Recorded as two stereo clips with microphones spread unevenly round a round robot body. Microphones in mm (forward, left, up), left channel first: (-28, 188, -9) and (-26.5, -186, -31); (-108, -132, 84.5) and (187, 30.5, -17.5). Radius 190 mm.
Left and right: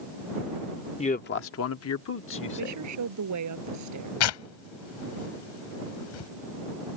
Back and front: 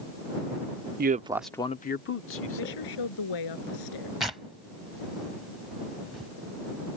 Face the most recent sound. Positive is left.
turn(degrees=120)